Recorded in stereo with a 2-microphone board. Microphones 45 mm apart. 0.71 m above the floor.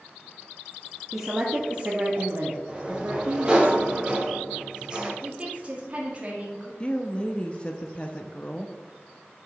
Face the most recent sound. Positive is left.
turn(degrees=25)  # may be behind; listen again after turning